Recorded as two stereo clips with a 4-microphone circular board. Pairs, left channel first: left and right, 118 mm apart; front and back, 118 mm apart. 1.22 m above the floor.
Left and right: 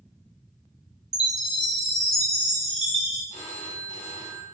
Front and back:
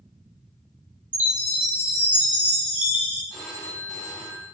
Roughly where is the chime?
Right.